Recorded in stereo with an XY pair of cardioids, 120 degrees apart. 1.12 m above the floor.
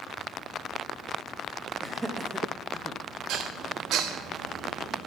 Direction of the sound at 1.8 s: 15° right.